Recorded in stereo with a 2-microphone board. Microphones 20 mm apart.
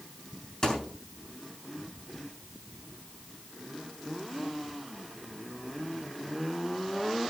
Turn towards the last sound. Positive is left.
turn(degrees=30)  # may be behind; listen again after turning